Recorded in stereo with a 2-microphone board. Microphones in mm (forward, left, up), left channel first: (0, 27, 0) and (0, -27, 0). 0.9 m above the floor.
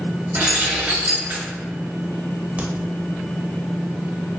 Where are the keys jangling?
35° right (ahead or behind), 1.1 m.